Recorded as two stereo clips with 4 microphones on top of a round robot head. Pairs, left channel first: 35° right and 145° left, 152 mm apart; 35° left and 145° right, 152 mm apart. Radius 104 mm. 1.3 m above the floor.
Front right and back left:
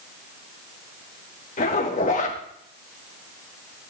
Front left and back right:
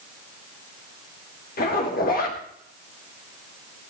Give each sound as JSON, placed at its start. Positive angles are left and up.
{"t": 1.6, "sound": "a zipper", "azimuth_deg": 5, "distance_m": 3.5}